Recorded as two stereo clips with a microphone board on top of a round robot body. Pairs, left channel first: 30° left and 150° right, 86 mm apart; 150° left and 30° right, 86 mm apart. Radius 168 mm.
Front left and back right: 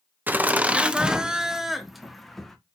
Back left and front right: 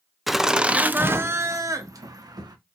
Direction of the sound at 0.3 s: 120° right.